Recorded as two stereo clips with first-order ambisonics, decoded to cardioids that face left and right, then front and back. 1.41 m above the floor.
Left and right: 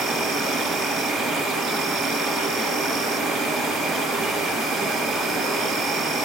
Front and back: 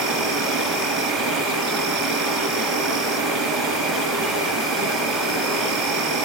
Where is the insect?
145° right, 2.5 m.